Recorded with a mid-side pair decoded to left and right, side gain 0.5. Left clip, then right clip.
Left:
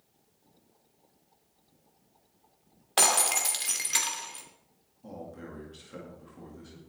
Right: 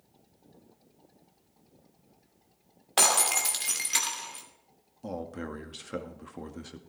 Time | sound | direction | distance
3.0 | breaking glass | 5° right | 2.5 m
5.0 | a man speaking | 65° right | 2.0 m